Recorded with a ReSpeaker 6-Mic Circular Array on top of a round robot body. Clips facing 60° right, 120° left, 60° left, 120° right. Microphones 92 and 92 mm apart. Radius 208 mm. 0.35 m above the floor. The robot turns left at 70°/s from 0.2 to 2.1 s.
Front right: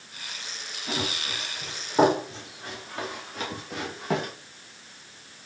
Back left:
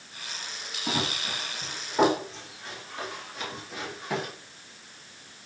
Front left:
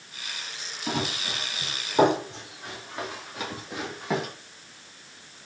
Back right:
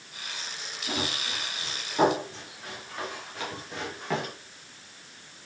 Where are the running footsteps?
85° left, 5.5 m; by 4.3 s 20° right, 4 m.